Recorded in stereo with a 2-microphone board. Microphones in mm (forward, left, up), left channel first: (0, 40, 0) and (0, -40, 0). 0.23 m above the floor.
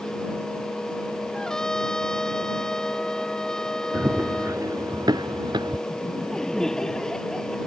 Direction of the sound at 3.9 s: 30° right (ahead or behind).